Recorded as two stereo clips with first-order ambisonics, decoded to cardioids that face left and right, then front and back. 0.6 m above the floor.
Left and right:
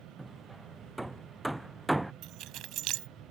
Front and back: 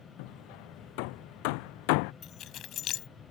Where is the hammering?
5° right.